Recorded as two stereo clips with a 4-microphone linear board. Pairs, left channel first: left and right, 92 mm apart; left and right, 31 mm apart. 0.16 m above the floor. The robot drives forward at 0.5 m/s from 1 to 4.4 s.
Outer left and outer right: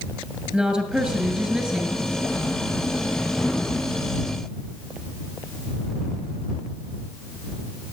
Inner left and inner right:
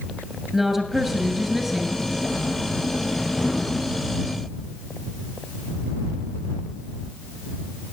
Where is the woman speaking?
10° right (ahead or behind), 2.5 m.